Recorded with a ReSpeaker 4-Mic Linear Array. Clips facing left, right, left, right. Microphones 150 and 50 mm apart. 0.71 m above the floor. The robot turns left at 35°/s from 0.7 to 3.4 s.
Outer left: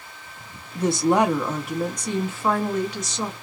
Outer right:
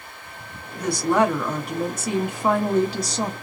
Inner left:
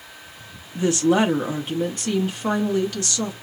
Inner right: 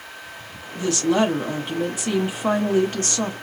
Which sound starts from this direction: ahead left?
A woman speaking, at 0.8 s.